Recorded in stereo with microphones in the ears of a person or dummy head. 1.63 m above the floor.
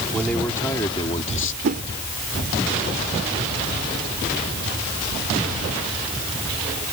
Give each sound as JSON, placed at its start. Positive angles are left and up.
{"t": 0.1, "sound": "a man speaking", "side_deg": 5}
{"t": 1.6, "sound": "a whoosh", "side_deg": -45}